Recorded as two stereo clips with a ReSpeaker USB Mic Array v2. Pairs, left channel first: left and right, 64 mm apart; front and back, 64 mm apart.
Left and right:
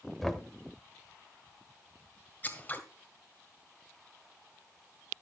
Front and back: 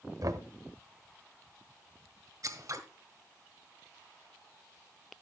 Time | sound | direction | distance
0.2 | knocking | straight behind | 1.0 m
2.4 | scissors | 150° left | 1.7 m